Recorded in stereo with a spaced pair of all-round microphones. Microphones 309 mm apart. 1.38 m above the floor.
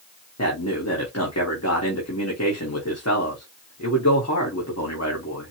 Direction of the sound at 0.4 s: 55° left (ahead or behind).